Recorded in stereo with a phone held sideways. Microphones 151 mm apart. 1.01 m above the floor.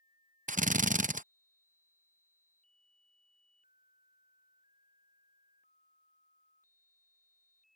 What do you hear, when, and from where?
0.5 s a drill: 60° right (ahead or behind)